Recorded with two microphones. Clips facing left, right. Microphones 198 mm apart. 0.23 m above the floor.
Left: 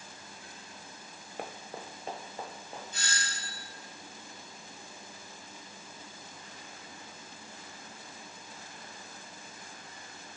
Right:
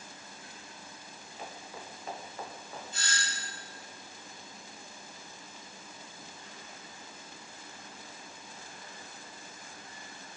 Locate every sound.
1.4 s running footsteps: 65° left (ahead or behind), 0.8 m; by 2.8 s 15° left (ahead or behind), 2 m
2.9 s a doorbell: 20° left (ahead or behind), 2 m